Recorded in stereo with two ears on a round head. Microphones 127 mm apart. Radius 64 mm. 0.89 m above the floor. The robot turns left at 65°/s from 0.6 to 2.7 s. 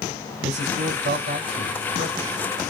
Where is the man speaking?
55° right (ahead or behind), 3 m; by 2.5 s 5° right (ahead or behind), 3 m.